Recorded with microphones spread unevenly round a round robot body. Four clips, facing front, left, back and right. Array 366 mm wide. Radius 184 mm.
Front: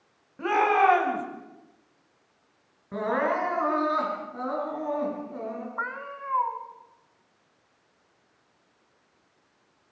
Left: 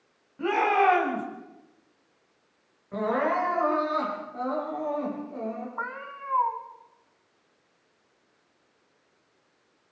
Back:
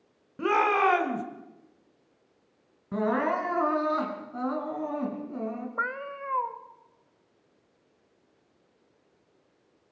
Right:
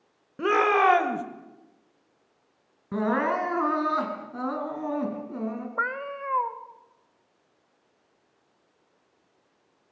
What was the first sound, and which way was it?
A shout, 130° right.